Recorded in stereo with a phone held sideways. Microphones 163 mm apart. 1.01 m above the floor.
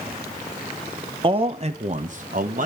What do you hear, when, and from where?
1.2 s a man speaking: 30° right (ahead or behind), 0.9 m; by 2.7 s 55° right (ahead or behind), 1.5 m